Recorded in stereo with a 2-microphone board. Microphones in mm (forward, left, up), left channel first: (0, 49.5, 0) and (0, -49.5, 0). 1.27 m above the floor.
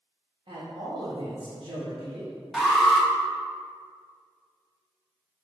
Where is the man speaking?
60° right (ahead or behind), 2 m.